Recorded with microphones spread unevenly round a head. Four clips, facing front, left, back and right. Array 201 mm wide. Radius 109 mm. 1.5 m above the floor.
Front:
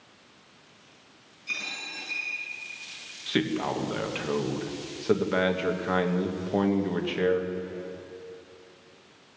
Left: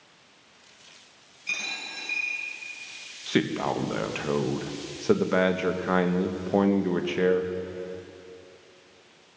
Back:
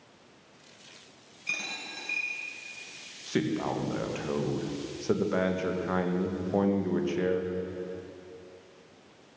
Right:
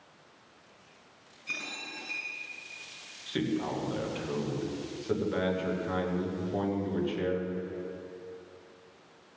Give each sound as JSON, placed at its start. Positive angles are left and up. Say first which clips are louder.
{"t": 1.5, "sound": "a dropped coin", "louder": "left 4 dB, even", "azimuth_deg": 170, "distance_m": 4.0}
{"t": 3.3, "sound": "a man speaking", "louder": "left 5 dB, front 2 dB", "azimuth_deg": 65, "distance_m": 1.3}